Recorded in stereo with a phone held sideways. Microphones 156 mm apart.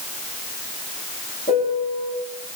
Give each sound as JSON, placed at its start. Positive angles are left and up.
{"t": 1.5, "sound": "a piano", "side_deg": 75, "distance_m": 6.5}